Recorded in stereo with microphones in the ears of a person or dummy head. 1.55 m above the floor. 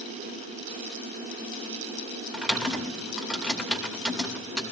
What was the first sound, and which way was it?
Typing on a keyboard, 5° right (ahead or behind).